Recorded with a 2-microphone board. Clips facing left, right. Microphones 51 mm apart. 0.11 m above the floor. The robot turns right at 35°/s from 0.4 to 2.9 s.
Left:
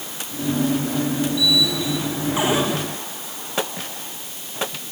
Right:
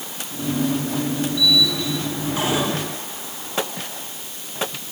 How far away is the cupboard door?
About 7.5 m.